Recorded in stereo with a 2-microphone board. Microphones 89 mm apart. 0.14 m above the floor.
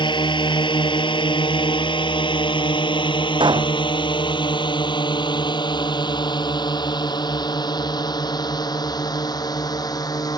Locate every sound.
0.0 s a drone: 60° left (ahead or behind); by 10.4 s 45° left (ahead or behind)
3.4 s a pop: 60° right (ahead or behind)